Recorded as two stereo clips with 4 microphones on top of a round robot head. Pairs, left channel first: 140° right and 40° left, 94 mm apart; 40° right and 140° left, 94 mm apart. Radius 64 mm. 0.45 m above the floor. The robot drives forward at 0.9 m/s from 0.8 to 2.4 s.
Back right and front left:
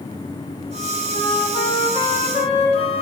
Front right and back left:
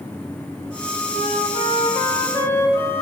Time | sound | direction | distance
1.1 | a flute | 70° right | 1.7 m